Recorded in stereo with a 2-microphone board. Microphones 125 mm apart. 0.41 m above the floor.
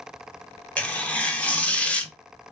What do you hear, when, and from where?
0.8 s tearing paper: 10° left (ahead or behind), 0.6 m